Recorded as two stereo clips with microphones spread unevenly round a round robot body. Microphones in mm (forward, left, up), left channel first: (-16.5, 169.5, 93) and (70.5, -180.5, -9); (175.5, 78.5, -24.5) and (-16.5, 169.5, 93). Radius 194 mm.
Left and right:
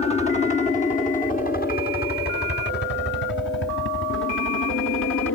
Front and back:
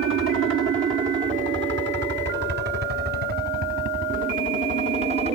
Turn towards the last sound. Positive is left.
turn(degrees=70)